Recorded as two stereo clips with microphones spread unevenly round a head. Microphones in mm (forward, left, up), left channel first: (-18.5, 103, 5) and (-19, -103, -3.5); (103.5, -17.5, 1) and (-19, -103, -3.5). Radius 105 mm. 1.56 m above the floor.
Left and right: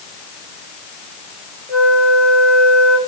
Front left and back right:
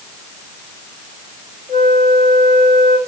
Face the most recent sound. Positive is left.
turn(degrees=0)